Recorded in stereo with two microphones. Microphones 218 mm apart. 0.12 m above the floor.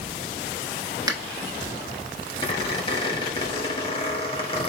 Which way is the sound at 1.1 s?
15° right (ahead or behind).